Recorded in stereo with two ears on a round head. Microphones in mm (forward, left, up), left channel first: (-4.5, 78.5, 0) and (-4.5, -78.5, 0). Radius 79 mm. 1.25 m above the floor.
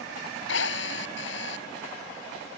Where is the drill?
70° left (ahead or behind).